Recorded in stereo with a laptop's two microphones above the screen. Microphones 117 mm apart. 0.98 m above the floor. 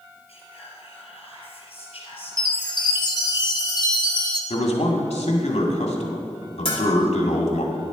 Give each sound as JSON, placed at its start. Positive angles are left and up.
{"t": 0.3, "sound": "whispering", "side_deg": 55, "distance_m": 4.0}
{"t": 2.4, "sound": "a chime", "side_deg": 35, "distance_m": 1.0}
{"t": 4.5, "sound": "a man speaking", "side_deg": 60, "distance_m": 1.9}
{"t": 6.7, "sound": "a bell", "side_deg": 50, "distance_m": 2.5}